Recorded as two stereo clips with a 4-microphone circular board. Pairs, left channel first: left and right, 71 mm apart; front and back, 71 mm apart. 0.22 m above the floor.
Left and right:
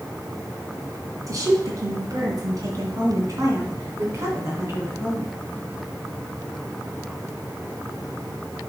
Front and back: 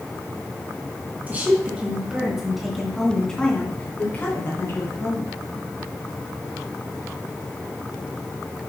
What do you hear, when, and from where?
1.3 s a woman speaking: 115° right, 3 m; by 5.3 s 35° right, 3 m